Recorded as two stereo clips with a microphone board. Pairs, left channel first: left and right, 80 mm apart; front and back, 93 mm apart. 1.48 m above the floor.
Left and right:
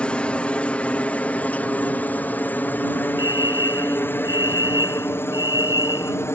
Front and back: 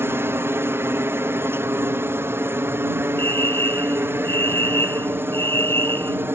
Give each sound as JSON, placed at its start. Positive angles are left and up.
{"t": 0.0, "sound": "a helicopter", "azimuth_deg": 150}
{"t": 3.2, "sound": "a fire alarm", "azimuth_deg": 65}